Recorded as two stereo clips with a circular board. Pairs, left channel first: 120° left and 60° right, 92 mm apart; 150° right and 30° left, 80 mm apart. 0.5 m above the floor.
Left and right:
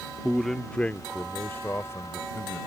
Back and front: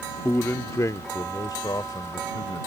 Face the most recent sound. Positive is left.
turn(degrees=180)